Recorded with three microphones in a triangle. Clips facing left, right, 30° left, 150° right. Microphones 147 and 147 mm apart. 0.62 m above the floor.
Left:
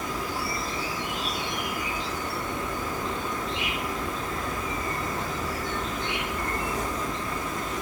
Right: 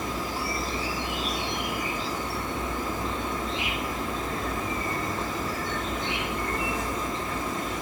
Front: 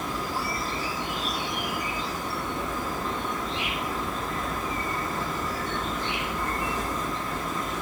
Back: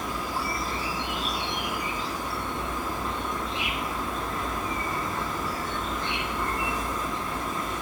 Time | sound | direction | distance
0.0 | an insect | 80° left | 1.6 m